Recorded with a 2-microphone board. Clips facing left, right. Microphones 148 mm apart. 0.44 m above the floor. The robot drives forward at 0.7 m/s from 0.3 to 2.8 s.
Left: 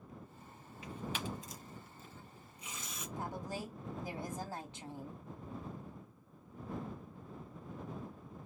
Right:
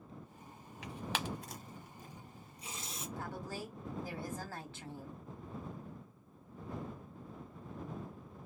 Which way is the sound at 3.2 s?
20° left (ahead or behind).